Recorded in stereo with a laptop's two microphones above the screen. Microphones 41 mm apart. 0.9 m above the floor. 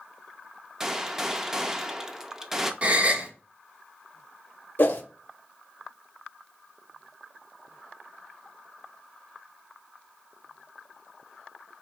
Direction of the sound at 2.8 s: 35° right (ahead or behind).